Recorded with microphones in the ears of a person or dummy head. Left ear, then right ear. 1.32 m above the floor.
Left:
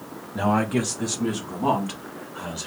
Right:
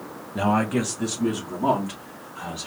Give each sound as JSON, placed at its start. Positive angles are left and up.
{"t": 0.3, "sound": "a man speaking", "side_deg": -10, "distance_m": 0.7}